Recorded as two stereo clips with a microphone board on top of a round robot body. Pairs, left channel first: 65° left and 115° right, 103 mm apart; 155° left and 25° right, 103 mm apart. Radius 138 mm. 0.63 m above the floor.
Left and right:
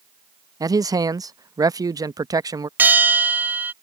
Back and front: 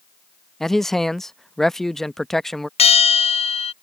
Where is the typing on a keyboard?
No typing on a keyboard in this recording.